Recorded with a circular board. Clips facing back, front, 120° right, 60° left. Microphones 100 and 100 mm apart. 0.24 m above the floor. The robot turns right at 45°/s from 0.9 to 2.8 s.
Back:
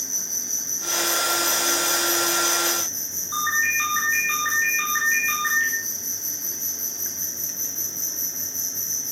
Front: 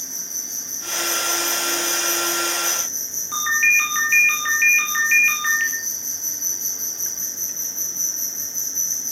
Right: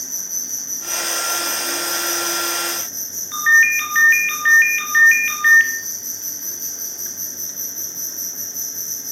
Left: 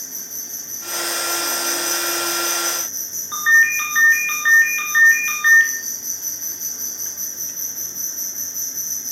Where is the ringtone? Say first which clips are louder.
Front 2 dB, right 1 dB; 10° right, 2.0 m.